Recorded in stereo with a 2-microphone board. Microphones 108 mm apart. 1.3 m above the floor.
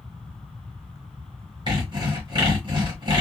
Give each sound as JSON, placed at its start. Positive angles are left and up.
{"t": 1.7, "sound": "sawing", "side_deg": -40, "distance_m": 1.4}